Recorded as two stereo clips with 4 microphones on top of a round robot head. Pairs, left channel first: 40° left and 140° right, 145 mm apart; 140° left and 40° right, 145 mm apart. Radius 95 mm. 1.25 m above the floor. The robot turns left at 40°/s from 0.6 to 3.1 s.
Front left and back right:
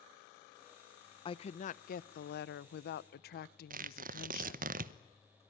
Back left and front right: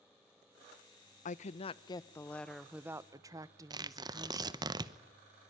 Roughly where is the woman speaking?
Left.